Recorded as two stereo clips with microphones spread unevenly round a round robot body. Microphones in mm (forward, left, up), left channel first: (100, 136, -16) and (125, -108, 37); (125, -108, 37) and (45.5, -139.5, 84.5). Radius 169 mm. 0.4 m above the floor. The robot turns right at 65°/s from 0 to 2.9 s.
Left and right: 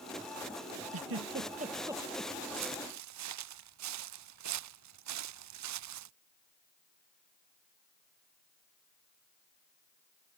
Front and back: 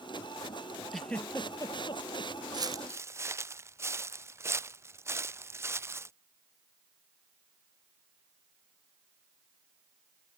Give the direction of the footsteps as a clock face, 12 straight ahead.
4 o'clock.